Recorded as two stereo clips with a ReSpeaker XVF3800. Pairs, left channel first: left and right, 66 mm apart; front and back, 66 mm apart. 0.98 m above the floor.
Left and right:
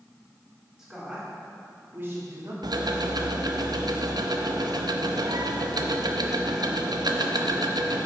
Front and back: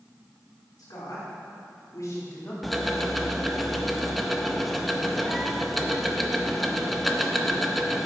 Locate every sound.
0.8 s a woman speaking: 5° right, 3 m; by 2.5 s 50° right, 2 m
2.6 s ticking: 90° right, 0.6 m